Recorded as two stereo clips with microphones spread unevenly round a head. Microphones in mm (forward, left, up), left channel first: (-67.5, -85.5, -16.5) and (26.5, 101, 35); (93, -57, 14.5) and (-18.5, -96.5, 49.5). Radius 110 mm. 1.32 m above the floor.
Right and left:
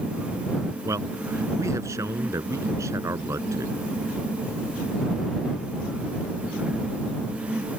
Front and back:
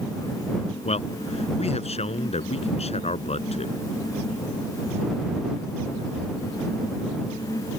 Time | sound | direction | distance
0.8 | a man speaking | 15° right | ?